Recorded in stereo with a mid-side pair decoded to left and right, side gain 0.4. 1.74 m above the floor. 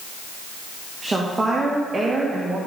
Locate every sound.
1.0 s a woman speaking: 25° right, 2.5 m